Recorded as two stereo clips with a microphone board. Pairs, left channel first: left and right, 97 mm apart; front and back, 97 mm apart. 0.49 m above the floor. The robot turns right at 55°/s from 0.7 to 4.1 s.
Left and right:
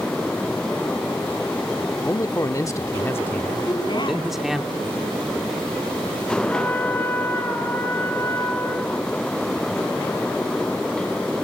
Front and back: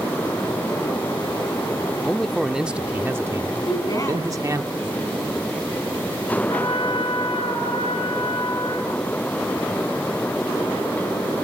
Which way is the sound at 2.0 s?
70° left.